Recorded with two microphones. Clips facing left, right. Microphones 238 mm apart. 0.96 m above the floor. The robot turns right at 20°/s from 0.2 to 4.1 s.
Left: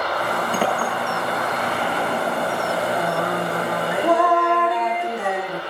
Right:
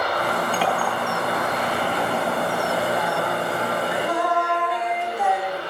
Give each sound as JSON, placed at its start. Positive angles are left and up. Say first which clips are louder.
{"t": 0.5, "sound": "a clink", "louder": "left 1 dB", "side_deg": 50, "distance_m": 5.0}
{"t": 3.0, "sound": "singing", "louder": "left 2 dB", "side_deg": 50, "distance_m": 1.8}